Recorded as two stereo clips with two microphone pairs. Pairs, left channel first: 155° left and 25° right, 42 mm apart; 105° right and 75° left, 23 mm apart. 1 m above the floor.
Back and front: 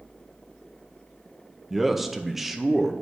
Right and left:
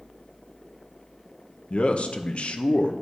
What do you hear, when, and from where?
1.7 s a man speaking: 110° right, 0.6 m